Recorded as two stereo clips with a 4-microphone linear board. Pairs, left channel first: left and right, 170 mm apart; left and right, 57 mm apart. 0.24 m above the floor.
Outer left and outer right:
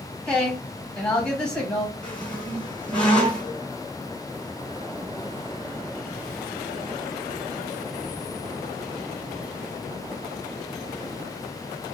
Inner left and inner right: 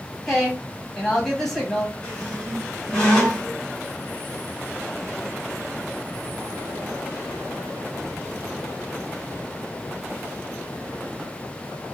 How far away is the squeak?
About 1.9 m.